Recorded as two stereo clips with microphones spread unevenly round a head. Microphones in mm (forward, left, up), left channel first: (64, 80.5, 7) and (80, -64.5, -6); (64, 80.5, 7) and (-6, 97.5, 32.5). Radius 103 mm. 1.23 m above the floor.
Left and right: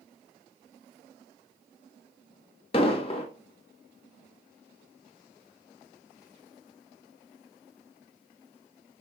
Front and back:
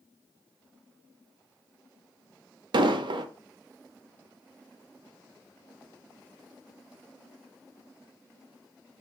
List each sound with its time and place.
2.7 s an explosion: 165° left, 0.9 m